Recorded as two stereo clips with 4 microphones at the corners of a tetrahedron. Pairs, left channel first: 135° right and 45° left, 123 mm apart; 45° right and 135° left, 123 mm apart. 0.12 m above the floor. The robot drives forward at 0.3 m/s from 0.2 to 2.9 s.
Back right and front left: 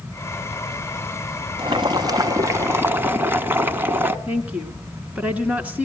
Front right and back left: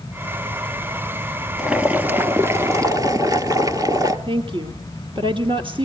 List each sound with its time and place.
1.6 s boiling: 55° left, 0.8 m; by 4.2 s 105° left, 0.7 m
4.3 s a woman speaking: 120° left, 1.5 m